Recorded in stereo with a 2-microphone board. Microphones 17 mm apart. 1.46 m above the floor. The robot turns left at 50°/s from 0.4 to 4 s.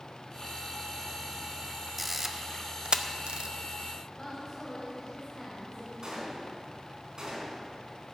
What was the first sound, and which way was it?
A camera shutter, centre (ahead or behind).